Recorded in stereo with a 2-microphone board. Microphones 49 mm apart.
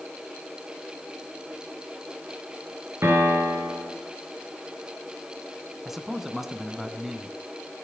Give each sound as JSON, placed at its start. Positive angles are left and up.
{"t": 3.0, "sound": "a piano", "side_deg": -55, "distance_m": 4.5}
{"t": 5.8, "sound": "a man speaking", "side_deg": -5, "distance_m": 2.0}